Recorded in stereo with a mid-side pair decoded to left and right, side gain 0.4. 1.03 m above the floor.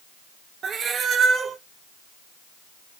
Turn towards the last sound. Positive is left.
turn(degrees=-60)